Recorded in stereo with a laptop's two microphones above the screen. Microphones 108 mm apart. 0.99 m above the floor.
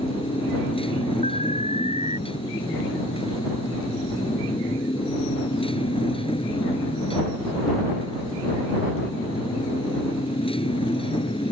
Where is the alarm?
80° left.